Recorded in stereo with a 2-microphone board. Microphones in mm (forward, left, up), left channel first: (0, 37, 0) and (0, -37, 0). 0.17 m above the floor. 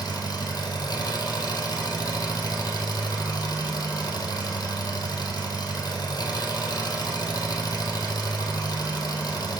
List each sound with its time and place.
0.0 s an engine running: 65° left (ahead or behind), 1.7 m